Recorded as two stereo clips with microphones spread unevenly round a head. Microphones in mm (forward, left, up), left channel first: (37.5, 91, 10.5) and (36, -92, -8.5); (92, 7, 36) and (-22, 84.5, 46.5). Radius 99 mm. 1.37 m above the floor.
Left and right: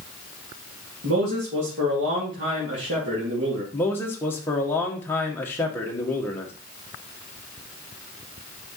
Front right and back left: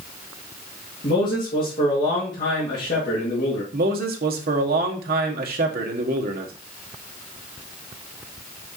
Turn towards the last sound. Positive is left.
turn(degrees=170)